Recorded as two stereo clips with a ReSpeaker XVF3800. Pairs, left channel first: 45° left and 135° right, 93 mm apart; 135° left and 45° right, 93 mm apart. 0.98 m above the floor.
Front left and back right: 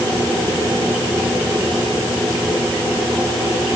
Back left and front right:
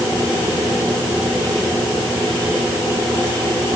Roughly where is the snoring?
I don't hear snoring.